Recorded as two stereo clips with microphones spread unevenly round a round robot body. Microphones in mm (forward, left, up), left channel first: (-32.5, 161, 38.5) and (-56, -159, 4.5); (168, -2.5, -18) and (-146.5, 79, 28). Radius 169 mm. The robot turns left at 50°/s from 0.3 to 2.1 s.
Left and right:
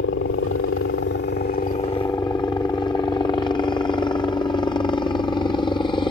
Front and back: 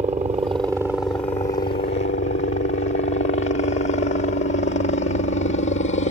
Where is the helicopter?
100° left; by 6.1 s 10° left.